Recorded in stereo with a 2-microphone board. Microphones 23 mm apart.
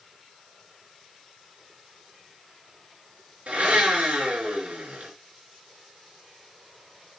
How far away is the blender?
About 4.5 m.